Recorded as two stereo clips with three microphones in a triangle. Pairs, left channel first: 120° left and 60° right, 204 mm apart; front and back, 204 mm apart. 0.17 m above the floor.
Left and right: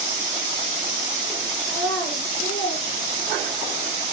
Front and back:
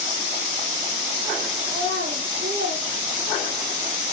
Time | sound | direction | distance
1.7 | a child speaking | 140° left | 2.5 m